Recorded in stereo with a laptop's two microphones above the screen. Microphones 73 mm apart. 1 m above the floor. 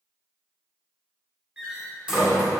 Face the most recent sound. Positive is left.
turn(degrees=-15)  # may be behind; listen again after turning